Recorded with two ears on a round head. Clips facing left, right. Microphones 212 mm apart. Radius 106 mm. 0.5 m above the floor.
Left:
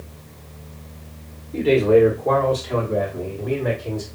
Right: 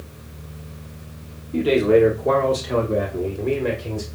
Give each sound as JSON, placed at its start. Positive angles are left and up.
{"t": 1.5, "sound": "a man speaking", "side_deg": -15, "distance_m": 1.3}